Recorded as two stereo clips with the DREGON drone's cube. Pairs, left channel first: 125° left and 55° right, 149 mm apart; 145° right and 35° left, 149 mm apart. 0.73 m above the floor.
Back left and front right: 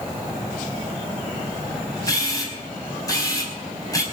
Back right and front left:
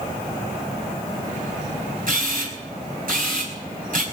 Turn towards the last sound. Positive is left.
turn(degrees=60)